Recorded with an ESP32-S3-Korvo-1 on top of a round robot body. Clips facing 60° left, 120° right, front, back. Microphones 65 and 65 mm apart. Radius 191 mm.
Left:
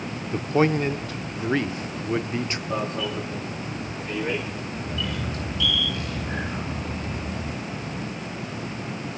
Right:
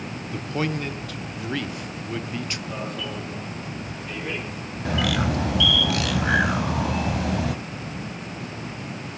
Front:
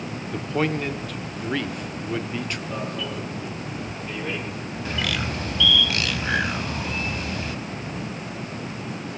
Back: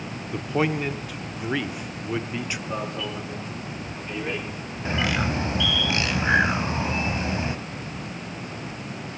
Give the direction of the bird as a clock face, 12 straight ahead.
4 o'clock.